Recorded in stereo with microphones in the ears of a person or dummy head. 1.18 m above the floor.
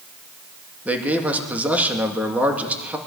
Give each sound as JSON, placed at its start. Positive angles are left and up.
{"t": 0.8, "sound": "a man speaking", "side_deg": -10, "distance_m": 2.0}